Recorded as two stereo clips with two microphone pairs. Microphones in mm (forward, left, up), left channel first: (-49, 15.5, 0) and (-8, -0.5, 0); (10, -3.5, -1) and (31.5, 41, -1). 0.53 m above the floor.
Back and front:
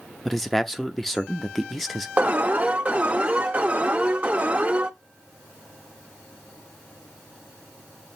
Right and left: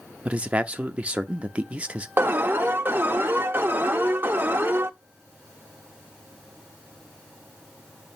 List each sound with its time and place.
0.2 s a man speaking: 80° left, 0.8 m
2.2 s an alarm: 30° left, 0.7 m